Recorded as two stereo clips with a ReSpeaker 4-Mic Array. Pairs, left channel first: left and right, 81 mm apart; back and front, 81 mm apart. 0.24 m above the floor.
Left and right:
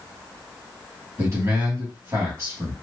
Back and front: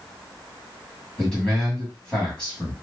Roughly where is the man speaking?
Right.